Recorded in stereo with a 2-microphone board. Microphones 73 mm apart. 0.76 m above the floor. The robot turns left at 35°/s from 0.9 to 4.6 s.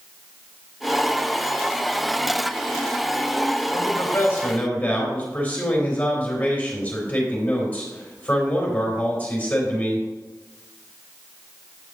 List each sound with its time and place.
3.7 s a man speaking: 55° left, 3 m; by 10.1 s 25° left, 3 m